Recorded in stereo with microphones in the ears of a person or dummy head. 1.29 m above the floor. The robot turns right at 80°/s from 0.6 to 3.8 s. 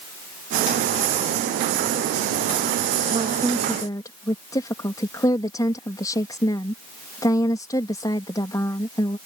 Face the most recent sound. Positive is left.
turn(degrees=25)